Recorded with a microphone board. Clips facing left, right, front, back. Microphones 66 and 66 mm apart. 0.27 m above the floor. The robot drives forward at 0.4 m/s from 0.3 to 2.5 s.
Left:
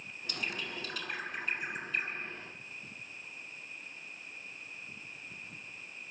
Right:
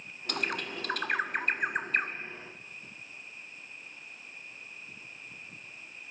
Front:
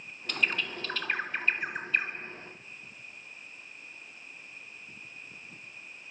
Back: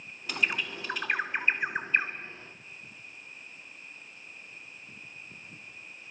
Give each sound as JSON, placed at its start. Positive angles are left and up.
{"t": 0.3, "sound": "a bird", "azimuth_deg": -100, "distance_m": 1.8}